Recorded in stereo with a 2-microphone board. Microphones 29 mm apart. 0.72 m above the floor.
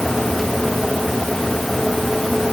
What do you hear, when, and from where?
Only background noise.